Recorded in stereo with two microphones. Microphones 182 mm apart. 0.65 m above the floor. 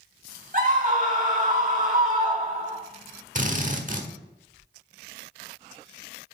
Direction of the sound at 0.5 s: 45° right (ahead or behind).